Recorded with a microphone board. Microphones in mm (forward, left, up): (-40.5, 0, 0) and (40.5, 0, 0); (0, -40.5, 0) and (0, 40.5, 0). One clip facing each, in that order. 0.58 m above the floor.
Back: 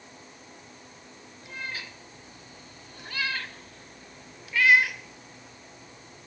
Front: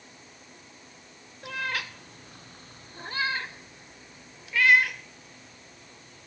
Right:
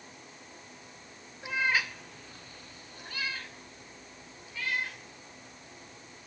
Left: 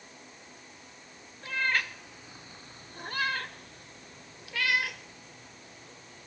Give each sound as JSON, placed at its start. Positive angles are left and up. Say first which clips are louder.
{"t": 1.4, "sound": "a cat meowing", "louder": "front 6 dB, right 1 dB", "azimuth_deg": -15, "distance_m": 1.2}